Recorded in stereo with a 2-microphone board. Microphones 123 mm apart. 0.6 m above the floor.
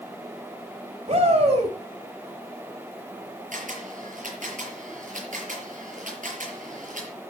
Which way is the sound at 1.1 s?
55° right (ahead or behind).